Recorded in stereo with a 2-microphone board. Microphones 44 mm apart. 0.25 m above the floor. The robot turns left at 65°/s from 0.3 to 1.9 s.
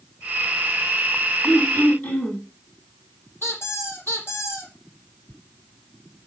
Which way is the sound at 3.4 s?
65° left (ahead or behind).